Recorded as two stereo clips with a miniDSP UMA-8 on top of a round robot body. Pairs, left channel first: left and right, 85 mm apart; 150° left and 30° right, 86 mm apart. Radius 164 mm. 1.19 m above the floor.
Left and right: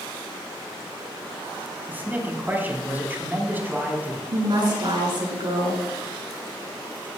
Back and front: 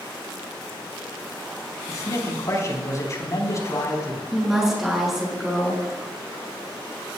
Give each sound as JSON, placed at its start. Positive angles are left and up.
{"t": 1.9, "sound": "a man speaking", "azimuth_deg": -160, "distance_m": 4.0}
{"t": 4.3, "sound": "a woman speaking", "azimuth_deg": -115, "distance_m": 6.5}